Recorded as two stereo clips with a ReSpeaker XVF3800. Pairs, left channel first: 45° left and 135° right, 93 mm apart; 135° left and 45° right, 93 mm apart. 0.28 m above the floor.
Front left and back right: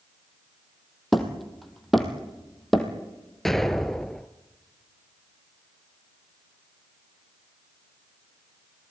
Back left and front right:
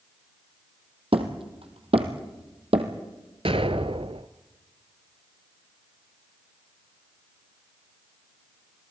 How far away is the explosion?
About 1.0 m.